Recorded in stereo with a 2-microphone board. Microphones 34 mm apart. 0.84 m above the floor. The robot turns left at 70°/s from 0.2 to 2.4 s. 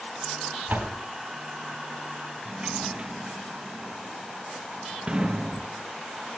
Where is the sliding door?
30° right (ahead or behind), 0.6 m.